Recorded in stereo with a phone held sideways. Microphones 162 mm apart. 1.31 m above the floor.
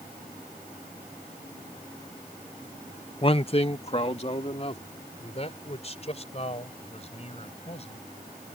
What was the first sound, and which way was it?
A man speaking, 35° left (ahead or behind).